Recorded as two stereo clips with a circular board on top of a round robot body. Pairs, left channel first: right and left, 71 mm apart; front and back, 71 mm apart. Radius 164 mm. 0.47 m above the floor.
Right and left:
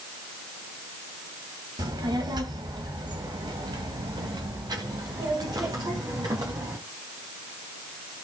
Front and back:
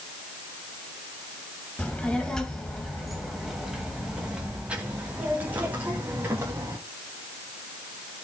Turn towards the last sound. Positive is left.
turn(degrees=125)